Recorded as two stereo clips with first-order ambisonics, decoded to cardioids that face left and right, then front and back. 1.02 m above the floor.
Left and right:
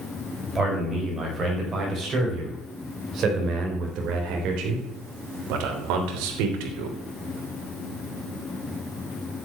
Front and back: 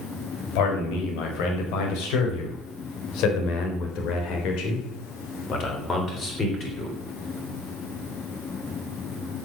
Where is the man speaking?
15° right, 5 m; by 7.0 s 80° right, 3.5 m.